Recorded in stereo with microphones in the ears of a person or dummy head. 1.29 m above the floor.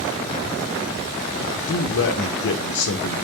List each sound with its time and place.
1.7 s a man speaking: 70° left (ahead or behind), 0.5 m